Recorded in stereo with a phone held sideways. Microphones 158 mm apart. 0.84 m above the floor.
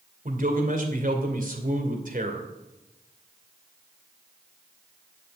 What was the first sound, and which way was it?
A man speaking, 60° right (ahead or behind).